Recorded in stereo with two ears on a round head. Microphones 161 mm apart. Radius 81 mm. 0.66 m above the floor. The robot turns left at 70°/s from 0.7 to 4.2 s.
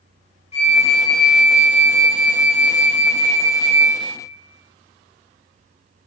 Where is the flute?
90° left, 0.9 m; by 4.0 s 145° right, 0.9 m.